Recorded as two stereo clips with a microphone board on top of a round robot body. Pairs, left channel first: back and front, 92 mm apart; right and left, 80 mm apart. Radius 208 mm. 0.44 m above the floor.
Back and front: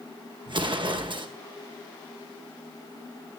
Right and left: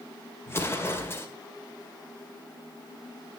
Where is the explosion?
30° right, 2.0 m.